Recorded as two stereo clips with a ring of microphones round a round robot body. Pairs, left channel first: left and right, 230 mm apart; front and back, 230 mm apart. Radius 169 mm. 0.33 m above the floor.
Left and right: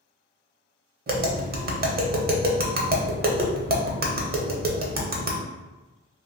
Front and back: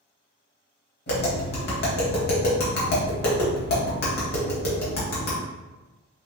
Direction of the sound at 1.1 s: 45° right.